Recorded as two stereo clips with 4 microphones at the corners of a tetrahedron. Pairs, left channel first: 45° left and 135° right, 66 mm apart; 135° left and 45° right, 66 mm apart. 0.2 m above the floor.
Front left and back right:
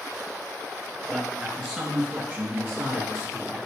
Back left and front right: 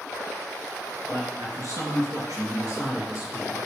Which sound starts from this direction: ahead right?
A man speaking, at 1.1 s.